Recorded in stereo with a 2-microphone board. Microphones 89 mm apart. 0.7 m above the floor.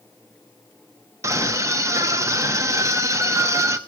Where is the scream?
35° right (ahead or behind), 1.0 m.